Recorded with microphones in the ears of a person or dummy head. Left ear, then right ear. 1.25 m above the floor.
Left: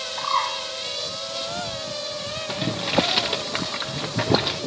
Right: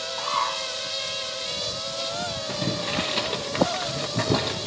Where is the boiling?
15° left (ahead or behind), 0.6 m.